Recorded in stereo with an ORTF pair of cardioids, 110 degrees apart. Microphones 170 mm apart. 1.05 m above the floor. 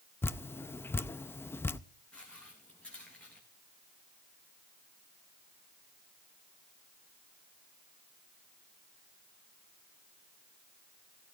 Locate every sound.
0.2 s dripping: 10° left, 0.6 m
2.1 s footsteps: 5° left, 4 m